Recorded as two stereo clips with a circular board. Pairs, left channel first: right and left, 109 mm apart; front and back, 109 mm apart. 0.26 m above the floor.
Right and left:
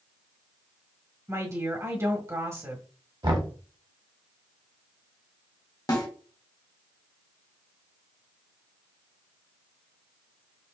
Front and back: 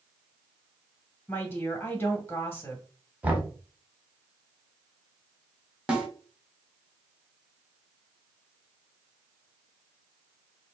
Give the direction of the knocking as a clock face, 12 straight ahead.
8 o'clock.